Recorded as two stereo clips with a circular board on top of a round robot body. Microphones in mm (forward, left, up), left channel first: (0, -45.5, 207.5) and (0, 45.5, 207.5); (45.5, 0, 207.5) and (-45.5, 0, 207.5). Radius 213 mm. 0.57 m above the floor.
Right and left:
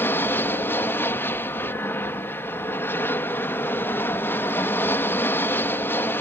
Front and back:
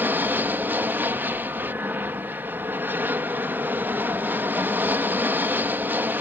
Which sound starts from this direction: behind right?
An aircraft, at 0.0 s.